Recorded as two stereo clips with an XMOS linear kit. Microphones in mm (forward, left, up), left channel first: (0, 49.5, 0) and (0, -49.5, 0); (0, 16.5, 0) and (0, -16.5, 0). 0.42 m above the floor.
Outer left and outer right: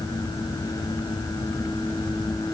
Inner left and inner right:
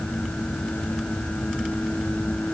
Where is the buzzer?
I don't hear a buzzer.